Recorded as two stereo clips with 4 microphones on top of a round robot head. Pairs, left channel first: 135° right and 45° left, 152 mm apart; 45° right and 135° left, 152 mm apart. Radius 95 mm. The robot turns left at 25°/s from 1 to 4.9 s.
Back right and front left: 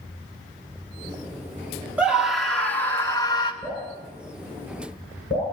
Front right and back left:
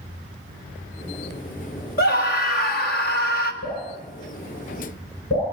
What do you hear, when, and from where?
2.0 s a scream: 35° right, 1.7 m; by 3.5 s 70° right, 1.7 m
3.6 s dripping: 65° right, 9 m; by 5.4 s 95° right, 9 m